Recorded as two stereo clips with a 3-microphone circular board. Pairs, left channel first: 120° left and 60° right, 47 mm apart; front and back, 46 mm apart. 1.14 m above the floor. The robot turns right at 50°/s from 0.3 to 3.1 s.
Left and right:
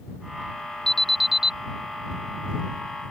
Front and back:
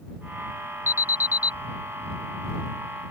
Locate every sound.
0.9 s an alarm: 170° right; by 1.5 s 135° right